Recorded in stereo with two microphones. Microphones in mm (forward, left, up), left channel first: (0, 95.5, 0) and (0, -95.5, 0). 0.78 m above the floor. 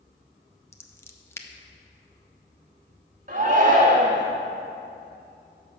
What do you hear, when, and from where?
0.7 s scissors: 15° left (ahead or behind), 0.5 m
3.3 s a shout: 45° right (ahead or behind), 1.5 m